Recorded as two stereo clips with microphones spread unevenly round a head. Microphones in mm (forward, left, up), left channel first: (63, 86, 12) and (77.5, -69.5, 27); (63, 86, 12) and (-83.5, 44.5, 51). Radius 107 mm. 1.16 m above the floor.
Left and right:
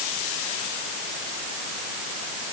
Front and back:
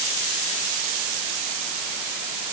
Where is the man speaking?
No man speaking in this recording.